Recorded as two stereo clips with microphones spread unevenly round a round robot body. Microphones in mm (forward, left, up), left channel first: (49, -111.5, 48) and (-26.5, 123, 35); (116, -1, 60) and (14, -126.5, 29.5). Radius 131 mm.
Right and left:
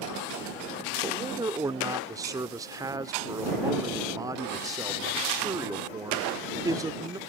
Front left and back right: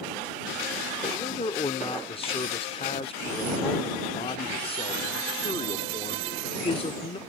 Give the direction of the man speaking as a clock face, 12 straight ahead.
10 o'clock.